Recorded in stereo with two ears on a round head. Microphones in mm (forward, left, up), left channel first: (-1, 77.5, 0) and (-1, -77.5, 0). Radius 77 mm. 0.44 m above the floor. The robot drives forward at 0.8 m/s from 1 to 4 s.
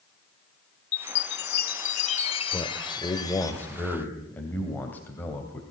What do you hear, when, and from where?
0.9 s a chime: 85° left, 0.8 m; by 3.5 s 20° left (ahead or behind), 2 m
2.5 s a man speaking: 20° left (ahead or behind), 1.4 m; by 5.6 s 10° left (ahead or behind), 2.5 m